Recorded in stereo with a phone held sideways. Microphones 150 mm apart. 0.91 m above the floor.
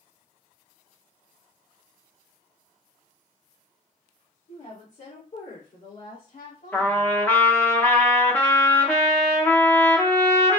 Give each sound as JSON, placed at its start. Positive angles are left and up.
{"t": 4.5, "sound": "a woman speaking", "side_deg": 40, "distance_m": 1.6}
{"t": 6.7, "sound": "a trumpet", "side_deg": 10, "distance_m": 0.7}